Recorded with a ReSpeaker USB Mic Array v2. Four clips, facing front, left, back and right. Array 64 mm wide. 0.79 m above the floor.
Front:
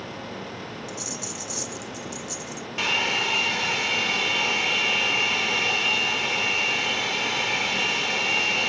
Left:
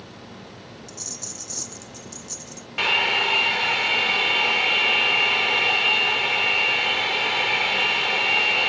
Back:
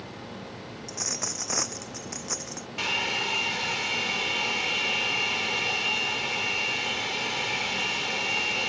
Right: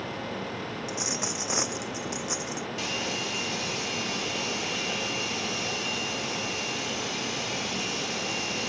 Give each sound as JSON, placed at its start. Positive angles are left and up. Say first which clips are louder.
{"t": 0.9, "sound": "a dropped coin", "louder": "right 8 dB, front 2 dB", "azimuth_deg": -135}
{"t": 2.8, "sound": "a hair dryer", "louder": "left 14 dB, front 4 dB", "azimuth_deg": 75}